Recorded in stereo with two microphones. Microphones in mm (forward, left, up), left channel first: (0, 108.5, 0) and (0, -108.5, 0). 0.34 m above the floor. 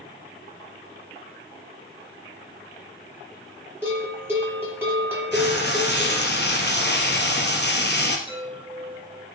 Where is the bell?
10° right (ahead or behind), 7 m.